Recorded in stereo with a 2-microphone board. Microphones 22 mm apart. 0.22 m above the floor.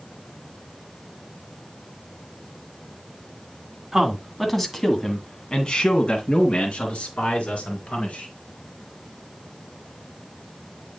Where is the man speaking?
15° right (ahead or behind), 2.0 m; by 8.3 s 65° left (ahead or behind), 4 m.